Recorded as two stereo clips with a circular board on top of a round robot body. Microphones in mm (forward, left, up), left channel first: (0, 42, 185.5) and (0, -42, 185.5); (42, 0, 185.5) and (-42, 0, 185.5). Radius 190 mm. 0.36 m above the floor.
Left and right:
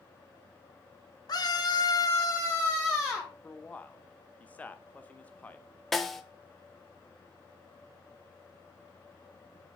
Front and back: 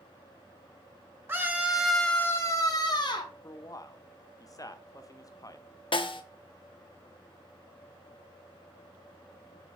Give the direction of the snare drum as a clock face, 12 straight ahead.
12 o'clock.